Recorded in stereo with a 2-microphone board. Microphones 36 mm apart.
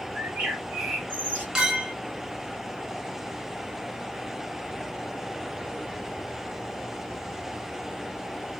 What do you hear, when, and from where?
0.1 s a bird: 65° right (ahead or behind), 1.6 m
1.6 s a clink: 20° right (ahead or behind), 1.1 m